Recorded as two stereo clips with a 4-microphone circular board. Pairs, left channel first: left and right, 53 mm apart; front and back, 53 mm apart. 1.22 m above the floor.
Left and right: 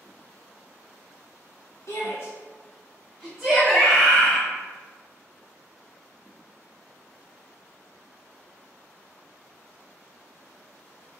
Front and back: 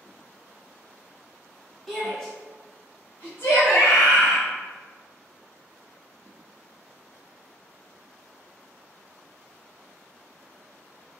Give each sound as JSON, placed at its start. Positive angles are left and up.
{"t": 1.9, "sound": "a shout", "azimuth_deg": 95, "distance_m": 1.1}
{"t": 3.6, "sound": "a scream", "azimuth_deg": 5, "distance_m": 1.0}